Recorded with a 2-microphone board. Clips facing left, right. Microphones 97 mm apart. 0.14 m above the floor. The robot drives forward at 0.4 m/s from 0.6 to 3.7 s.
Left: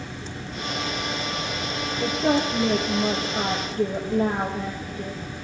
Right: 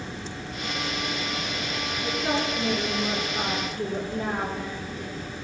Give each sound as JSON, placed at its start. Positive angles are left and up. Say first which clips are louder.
{"t": 2.0, "sound": "a woman speaking", "louder": "left 6 dB", "side_deg": 55, "distance_m": 3.0}